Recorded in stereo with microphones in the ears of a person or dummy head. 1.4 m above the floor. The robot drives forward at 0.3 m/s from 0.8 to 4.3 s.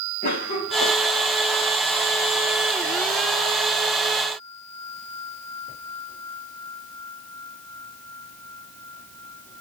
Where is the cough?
50° left (ahead or behind), 1.8 m.